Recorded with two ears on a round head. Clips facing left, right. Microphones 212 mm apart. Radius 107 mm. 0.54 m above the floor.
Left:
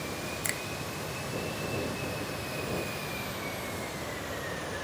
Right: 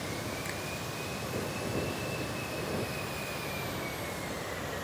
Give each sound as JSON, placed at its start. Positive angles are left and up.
{"t": 0.4, "sound": "a finger snap", "side_deg": 70}